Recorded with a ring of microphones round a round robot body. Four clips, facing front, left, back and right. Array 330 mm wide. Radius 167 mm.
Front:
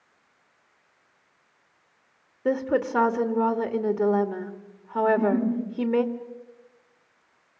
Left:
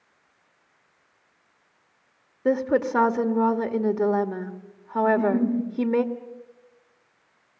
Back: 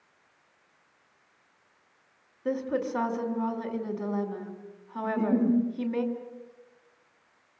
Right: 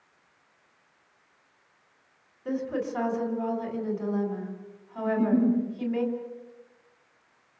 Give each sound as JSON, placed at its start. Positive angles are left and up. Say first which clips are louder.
{"t": 2.5, "sound": "a woman speaking", "louder": "left 8 dB, front 5 dB", "azimuth_deg": 55, "distance_m": 1.9}
{"t": 5.0, "sound": "a giggle", "louder": "left 2 dB, front 3 dB", "azimuth_deg": 160, "distance_m": 4.5}